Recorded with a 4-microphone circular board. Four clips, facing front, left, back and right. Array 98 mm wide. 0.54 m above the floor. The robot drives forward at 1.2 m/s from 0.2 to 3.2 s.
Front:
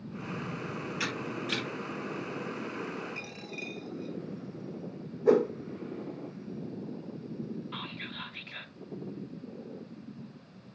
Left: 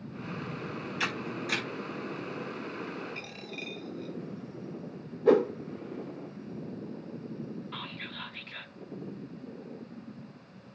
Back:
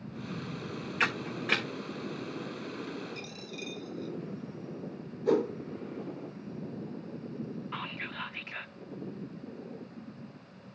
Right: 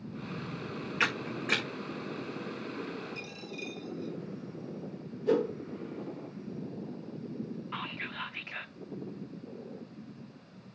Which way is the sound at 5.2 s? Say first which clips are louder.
Left 5 dB, front 4 dB; 60° left.